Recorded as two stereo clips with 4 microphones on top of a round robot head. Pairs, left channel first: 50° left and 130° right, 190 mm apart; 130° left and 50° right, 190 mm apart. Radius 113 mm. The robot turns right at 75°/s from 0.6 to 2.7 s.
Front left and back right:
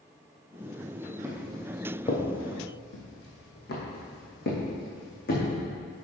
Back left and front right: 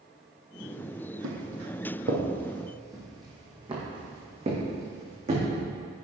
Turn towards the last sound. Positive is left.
turn(degrees=5)